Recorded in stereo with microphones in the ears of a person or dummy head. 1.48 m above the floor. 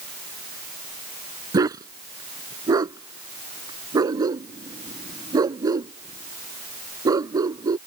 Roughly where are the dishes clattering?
I don't hear dishes clattering.